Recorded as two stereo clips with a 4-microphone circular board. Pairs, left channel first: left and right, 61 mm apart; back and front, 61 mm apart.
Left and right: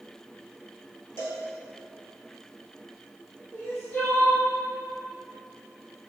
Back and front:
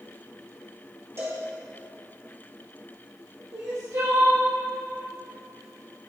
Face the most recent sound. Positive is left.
turn(degrees=25)